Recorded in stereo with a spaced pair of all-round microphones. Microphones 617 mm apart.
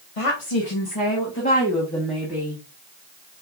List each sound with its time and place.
0.2 s a woman speaking: 60° left (ahead or behind), 1.0 m; by 2.6 s 10° right (ahead or behind), 1.6 m